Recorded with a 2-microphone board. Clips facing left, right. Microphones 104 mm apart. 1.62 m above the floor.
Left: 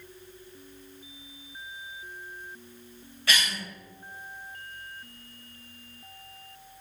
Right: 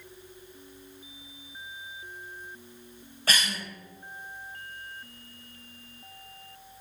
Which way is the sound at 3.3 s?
40° right (ahead or behind).